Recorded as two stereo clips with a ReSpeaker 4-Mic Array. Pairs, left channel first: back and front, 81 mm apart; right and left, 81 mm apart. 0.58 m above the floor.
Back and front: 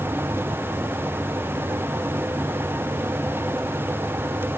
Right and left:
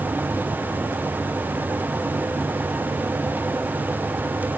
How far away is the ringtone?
No ringtone in this recording.